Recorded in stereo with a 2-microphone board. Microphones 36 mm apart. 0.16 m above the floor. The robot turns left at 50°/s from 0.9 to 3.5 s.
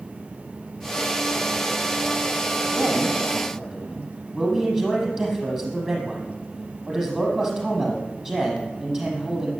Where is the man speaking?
125° right, 6.5 m; by 9.5 s 160° right, 6.5 m.